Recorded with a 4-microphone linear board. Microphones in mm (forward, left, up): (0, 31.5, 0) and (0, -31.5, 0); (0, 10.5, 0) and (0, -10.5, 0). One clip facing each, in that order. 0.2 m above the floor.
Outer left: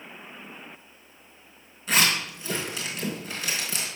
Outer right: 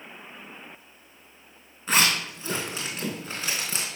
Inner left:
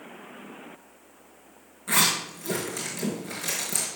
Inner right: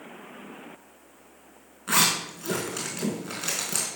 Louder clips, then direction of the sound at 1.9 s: Even, even; 35° right (ahead or behind).